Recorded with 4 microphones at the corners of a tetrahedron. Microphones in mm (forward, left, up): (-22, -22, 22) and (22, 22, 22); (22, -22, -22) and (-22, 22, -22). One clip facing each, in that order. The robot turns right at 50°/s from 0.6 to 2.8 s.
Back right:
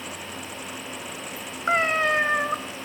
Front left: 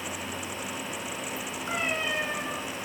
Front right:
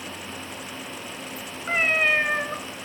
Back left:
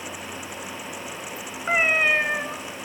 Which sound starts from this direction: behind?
A cat meowing, at 1.7 s.